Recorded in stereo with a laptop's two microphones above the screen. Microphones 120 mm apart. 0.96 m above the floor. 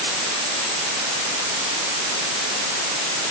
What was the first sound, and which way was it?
Only background noise.